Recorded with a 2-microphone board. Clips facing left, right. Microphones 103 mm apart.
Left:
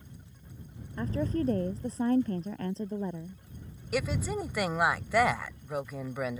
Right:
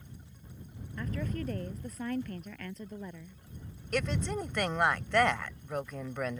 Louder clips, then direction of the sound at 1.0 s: Left 7 dB; 30° left (ahead or behind).